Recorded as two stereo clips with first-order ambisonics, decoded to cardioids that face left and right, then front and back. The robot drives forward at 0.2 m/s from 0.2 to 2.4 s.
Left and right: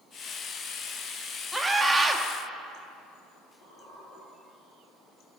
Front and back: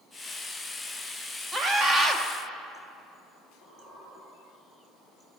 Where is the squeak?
125° left, 4.5 m.